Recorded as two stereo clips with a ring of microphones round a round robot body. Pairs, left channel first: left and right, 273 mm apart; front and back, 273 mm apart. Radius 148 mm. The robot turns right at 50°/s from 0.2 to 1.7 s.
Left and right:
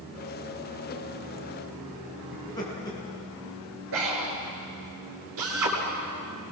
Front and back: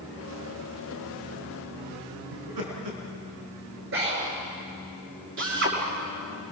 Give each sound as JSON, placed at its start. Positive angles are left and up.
{"t": 2.3, "sound": "laughter", "azimuth_deg": 165, "distance_m": 5.0}
{"t": 3.9, "sound": "breathing", "azimuth_deg": -140, "distance_m": 6.5}
{"t": 5.4, "sound": "a drill", "azimuth_deg": -135, "distance_m": 5.5}